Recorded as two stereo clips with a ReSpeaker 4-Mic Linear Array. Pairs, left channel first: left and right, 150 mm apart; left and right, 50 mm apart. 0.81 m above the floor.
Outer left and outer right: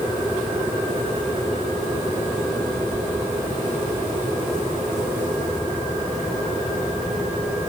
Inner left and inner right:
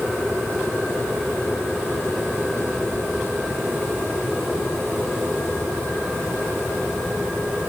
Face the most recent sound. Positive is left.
No sound to turn to.